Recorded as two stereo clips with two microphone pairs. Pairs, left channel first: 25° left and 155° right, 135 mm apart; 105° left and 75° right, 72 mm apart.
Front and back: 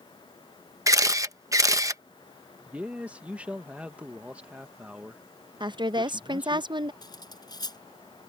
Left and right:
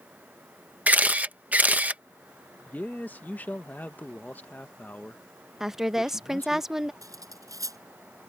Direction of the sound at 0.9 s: 120° right.